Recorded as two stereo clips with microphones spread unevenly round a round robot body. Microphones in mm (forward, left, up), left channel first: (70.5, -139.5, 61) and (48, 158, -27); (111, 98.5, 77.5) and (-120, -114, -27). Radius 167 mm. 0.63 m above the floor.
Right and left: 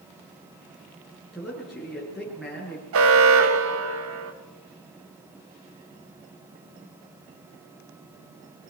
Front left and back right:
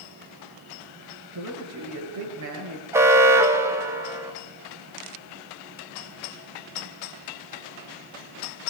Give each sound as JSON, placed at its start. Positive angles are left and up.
{"t": 1.3, "sound": "a man speaking", "azimuth_deg": -175, "distance_m": 9.5}
{"t": 2.9, "sound": "an alarm", "azimuth_deg": 145, "distance_m": 1.8}